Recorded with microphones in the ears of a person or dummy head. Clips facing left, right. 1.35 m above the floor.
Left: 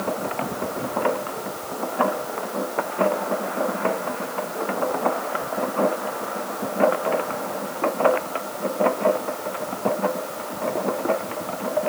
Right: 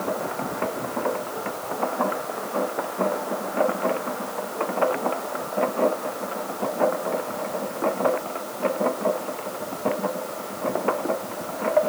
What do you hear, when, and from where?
Only background noise.